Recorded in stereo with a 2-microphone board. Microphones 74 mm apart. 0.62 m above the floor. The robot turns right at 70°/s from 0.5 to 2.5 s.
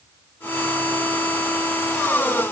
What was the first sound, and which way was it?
Only background noise.